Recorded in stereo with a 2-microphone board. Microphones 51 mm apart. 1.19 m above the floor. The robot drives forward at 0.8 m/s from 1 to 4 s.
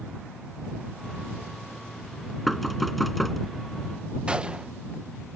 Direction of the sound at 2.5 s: Centre (ahead or behind).